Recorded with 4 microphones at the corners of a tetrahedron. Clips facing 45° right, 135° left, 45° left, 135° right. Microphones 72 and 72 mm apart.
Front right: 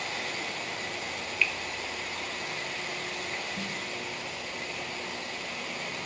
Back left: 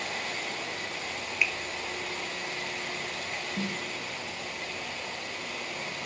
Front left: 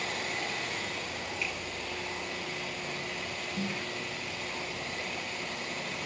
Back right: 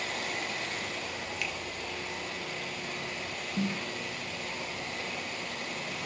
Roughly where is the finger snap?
Behind right.